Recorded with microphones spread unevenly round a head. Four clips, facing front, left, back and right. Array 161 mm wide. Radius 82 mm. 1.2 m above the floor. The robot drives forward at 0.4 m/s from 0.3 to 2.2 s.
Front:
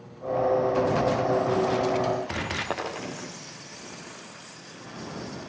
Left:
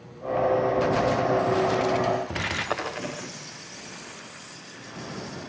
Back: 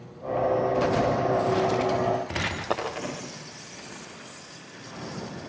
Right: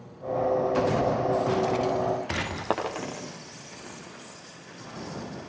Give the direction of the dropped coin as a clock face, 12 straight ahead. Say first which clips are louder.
Right 1 dB, back 2 dB; 3 o'clock.